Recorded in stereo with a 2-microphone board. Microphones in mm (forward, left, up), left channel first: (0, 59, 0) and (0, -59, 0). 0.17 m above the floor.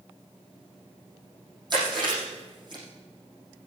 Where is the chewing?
40° right (ahead or behind), 5.5 m.